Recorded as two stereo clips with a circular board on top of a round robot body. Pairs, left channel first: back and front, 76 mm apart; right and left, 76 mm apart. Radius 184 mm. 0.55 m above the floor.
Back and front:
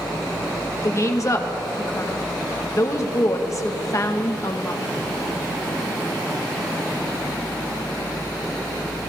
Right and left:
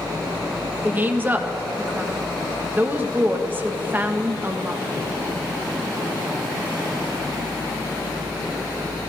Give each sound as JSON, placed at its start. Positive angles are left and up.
{"t": 0.8, "sound": "a woman speaking", "azimuth_deg": 150, "distance_m": 1.4}